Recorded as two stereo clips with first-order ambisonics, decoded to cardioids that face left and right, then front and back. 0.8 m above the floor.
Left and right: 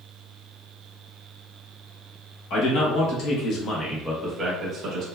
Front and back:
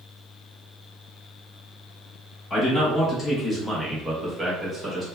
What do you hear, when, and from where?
2.5 s a man speaking: 80° left, 1.1 m; by 5.0 s 120° right, 0.8 m